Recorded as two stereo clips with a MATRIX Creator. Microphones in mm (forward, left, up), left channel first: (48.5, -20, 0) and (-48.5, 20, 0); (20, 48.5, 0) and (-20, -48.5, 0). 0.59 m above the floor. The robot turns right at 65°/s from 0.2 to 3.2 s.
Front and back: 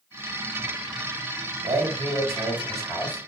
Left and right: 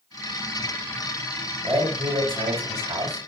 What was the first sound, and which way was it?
A man speaking, 175° left.